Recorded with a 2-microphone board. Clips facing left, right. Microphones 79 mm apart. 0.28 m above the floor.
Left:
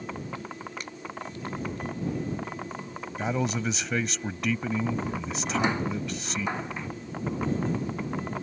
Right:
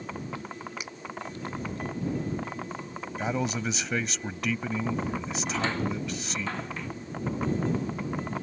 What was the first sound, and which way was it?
A finger snap, 5° right (ahead or behind).